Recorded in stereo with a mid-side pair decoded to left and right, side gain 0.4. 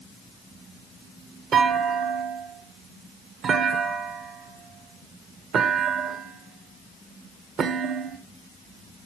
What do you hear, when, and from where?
1.5 s a clunk: 70° right, 1.7 m